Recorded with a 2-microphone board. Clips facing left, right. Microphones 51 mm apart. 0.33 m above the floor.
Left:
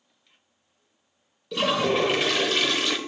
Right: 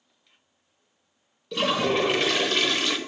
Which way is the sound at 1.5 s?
Centre (ahead or behind).